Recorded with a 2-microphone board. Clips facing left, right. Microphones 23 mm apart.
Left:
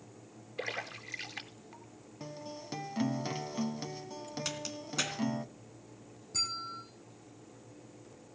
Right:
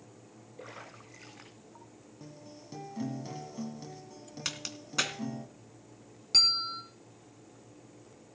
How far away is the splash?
About 3 m.